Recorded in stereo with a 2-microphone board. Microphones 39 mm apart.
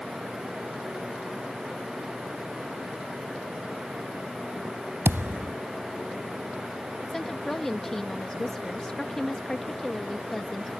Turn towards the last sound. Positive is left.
turn(degrees=10)  # may be behind; listen again after turning